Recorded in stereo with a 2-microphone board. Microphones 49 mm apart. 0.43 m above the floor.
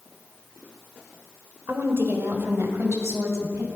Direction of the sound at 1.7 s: 50° right (ahead or behind).